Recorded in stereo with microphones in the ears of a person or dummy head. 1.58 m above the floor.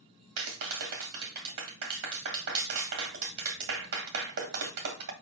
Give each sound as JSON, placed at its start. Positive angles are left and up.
{"t": 0.4, "sound": "a clap", "side_deg": -75, "distance_m": 1.9}